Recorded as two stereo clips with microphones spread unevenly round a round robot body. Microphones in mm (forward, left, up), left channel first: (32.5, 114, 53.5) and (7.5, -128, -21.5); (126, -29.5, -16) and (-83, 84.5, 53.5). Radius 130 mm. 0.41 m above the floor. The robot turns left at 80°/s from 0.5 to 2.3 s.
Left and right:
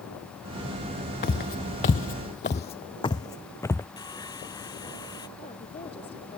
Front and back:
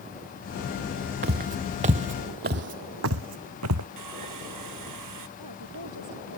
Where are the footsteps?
125° left; by 3.9 s 160° left.